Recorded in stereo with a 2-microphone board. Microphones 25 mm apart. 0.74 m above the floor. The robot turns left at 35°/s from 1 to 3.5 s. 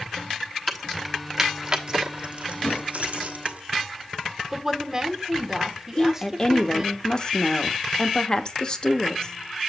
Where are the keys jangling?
5° right (ahead or behind), 1.2 m; by 3.6 s 70° right (ahead or behind), 1.2 m.